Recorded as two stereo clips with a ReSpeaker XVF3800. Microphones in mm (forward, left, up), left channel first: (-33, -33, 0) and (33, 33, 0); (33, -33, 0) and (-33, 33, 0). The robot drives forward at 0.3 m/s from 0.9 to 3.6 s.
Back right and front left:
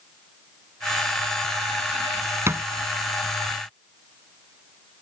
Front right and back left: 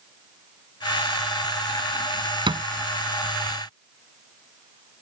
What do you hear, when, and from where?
2.5 s a thud: 105° left